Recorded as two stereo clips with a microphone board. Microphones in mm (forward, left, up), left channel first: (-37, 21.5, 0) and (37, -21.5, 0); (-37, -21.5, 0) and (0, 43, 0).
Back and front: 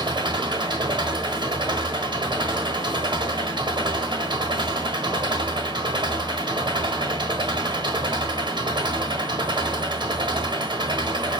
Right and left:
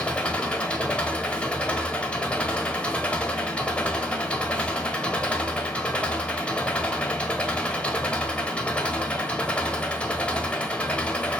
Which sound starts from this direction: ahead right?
An engine running, at 0.0 s.